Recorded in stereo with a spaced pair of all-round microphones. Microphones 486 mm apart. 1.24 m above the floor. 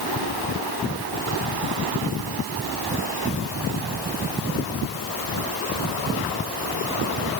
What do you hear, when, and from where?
Only background noise.